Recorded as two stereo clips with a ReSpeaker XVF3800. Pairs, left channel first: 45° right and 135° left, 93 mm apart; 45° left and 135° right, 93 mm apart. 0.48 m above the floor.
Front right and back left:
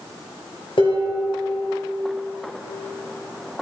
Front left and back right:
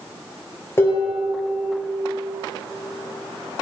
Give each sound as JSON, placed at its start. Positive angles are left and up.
{"t": 0.8, "sound": "dishes clattering", "azimuth_deg": -15, "distance_m": 7.0}